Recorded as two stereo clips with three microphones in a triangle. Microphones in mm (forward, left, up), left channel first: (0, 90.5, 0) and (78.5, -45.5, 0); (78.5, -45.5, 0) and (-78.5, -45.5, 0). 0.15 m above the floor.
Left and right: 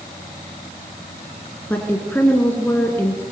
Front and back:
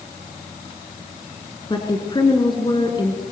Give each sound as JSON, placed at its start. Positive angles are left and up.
{"t": 1.7, "sound": "a woman speaking", "azimuth_deg": 45, "distance_m": 1.8}